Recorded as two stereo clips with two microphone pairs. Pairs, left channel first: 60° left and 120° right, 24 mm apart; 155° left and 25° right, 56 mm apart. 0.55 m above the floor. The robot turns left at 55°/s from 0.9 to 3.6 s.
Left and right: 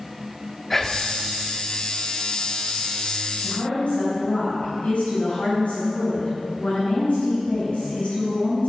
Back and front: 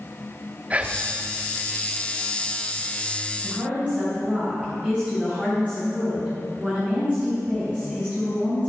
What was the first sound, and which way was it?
Whispering, 10° right.